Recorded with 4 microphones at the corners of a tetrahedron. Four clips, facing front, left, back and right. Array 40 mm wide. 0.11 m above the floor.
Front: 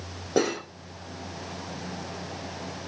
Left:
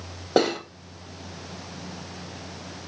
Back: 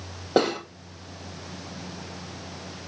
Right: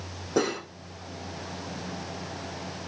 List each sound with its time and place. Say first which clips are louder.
0.4 s cutlery clinking: left 5 dB, back 3 dB; 115° left, 2.0 m